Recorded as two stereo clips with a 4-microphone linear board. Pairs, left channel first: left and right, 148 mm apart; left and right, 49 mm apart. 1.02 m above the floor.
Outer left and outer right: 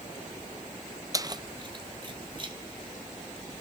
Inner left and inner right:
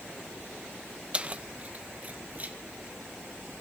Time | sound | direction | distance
1.1 | keys jangling | 25° right (ahead or behind) | 0.6 m